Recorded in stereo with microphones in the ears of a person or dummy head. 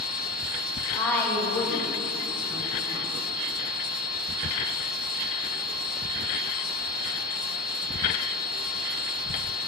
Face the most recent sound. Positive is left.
turn(degrees=-25)  # may be behind; listen again after turning